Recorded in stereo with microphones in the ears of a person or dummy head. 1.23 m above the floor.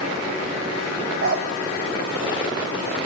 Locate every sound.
1.2 s a dog barking: 65° right (ahead or behind), 1.8 m